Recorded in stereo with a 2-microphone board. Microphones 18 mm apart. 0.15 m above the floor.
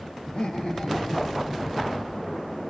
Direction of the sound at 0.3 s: 65° left (ahead or behind).